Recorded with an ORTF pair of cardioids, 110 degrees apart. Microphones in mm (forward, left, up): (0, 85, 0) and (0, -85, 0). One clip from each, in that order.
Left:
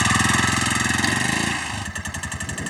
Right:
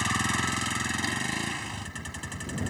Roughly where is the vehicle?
Ahead left.